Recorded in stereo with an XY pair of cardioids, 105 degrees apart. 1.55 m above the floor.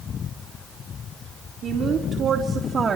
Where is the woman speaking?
60° right, 4.5 m; by 3.0 s 45° right, 3 m.